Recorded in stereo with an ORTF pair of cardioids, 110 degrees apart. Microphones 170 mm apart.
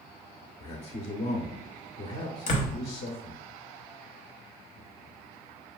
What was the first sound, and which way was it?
A man speaking, 40° left.